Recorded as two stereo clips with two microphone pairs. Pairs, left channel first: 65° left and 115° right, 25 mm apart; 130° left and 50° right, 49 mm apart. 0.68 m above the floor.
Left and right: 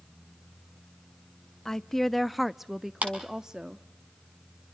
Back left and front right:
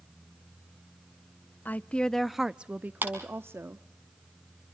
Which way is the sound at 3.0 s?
100° right.